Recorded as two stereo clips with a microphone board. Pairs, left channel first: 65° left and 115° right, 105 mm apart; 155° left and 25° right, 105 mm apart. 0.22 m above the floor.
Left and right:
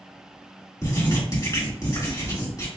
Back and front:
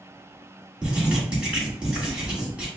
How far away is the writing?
About 1.8 m.